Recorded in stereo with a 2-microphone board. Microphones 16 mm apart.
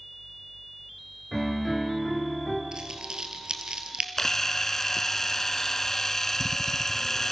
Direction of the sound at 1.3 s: 15° left (ahead or behind).